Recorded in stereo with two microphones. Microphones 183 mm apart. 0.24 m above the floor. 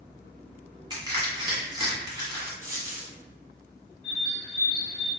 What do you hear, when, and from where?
0.9 s crushing: 25° right (ahead or behind), 1.4 m
2.6 s a dropped coin: 50° right (ahead or behind), 1.0 m
4.0 s a bird: 75° right (ahead or behind), 0.8 m